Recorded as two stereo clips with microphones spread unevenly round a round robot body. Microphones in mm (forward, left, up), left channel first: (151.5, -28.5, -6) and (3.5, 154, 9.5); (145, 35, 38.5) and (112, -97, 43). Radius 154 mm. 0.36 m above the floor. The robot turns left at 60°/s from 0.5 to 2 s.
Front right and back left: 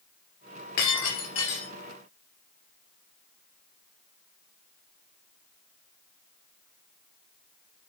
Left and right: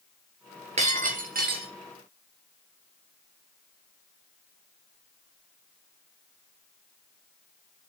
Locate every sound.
0.8 s breaking glass: 65° right, 3 m; by 1.7 s 120° right, 3 m